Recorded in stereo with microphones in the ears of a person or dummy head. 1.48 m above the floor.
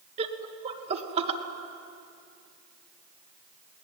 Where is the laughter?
35° right (ahead or behind), 2 m.